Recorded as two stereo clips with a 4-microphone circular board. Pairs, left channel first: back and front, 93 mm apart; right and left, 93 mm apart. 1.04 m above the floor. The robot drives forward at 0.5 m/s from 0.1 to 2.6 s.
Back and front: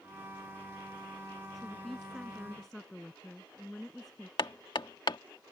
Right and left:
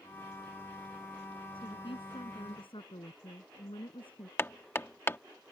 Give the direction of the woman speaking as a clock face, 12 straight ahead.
3 o'clock.